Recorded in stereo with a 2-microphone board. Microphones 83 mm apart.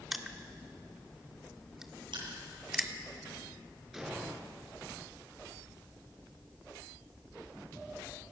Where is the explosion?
5° right (ahead or behind), 6 m.